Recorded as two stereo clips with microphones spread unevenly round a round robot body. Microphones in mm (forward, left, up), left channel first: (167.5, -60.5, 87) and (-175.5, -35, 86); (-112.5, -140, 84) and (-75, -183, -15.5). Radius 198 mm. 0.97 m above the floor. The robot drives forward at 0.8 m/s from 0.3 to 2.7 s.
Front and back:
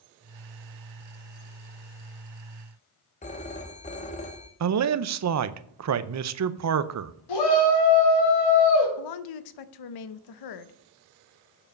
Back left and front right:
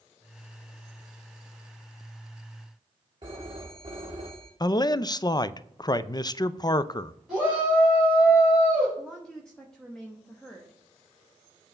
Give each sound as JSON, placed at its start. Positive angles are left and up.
{"t": 3.2, "sound": "a phone ringing", "azimuth_deg": 65, "distance_m": 0.5}
{"t": 4.6, "sound": "a man speaking", "azimuth_deg": -140, "distance_m": 0.7}
{"t": 7.3, "sound": "a shout", "azimuth_deg": 20, "distance_m": 4.0}
{"t": 9.0, "sound": "a woman speaking", "azimuth_deg": 25, "distance_m": 0.7}